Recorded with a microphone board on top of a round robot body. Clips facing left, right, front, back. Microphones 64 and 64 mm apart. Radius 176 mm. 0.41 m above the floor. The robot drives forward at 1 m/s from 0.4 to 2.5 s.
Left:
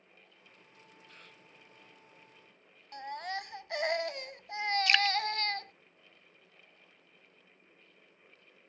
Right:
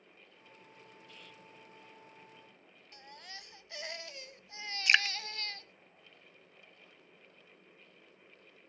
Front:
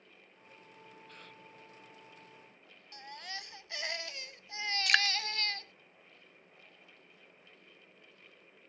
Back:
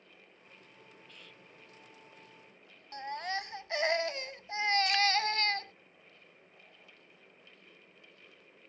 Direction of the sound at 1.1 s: 40° left.